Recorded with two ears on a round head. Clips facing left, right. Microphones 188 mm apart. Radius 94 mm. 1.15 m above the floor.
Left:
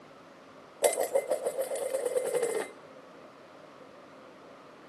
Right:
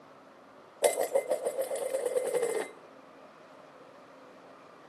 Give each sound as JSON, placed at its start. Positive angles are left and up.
{"t": 0.8, "sound": "dishes clattering", "side_deg": 0, "distance_m": 0.8}